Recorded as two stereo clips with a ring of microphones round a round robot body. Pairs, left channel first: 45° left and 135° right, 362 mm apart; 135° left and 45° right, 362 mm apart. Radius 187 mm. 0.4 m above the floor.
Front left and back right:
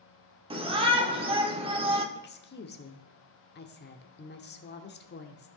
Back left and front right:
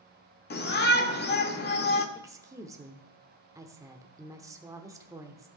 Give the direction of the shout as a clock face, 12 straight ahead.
7 o'clock.